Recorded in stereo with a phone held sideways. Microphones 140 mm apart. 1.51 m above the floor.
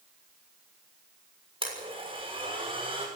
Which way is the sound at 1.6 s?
40° right (ahead or behind).